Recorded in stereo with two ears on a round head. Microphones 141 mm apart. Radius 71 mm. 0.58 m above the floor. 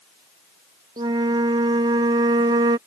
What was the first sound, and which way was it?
A flute, 25° right (ahead or behind).